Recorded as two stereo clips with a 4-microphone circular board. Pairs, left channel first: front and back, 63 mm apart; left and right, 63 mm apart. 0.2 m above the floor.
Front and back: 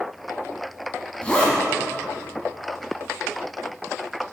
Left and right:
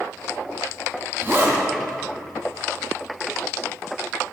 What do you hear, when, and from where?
1.2 s a zipper: 65° right, 0.8 m